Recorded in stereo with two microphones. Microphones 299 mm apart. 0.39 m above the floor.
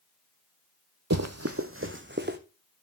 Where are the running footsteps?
65° right (ahead or behind), 0.9 m; by 2.4 s 35° right (ahead or behind), 1.8 m.